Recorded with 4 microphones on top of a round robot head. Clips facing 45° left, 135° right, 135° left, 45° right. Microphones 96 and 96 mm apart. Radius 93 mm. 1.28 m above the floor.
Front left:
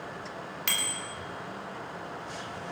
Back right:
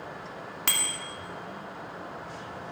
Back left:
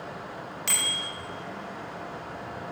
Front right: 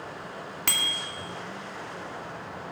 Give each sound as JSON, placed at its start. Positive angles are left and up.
{"t": 0.7, "sound": "a bicycle bell", "azimuth_deg": -85, "distance_m": 2.5}